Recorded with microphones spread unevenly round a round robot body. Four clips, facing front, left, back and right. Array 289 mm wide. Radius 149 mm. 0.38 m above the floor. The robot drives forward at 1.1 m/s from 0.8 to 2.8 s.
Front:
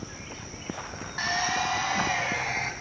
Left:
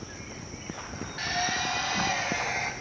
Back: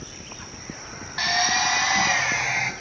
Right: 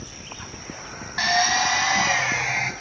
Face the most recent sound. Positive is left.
turn(degrees=-125)